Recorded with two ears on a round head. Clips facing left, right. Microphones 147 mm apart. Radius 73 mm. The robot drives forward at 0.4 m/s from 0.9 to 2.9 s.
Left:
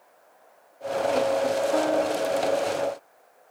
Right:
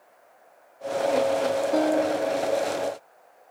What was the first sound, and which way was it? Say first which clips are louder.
A piano: right 1 dB; 20° right (ahead or behind).